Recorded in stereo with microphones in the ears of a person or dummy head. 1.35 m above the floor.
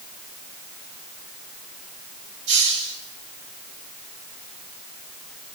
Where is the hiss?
65° right (ahead or behind), 5.5 m.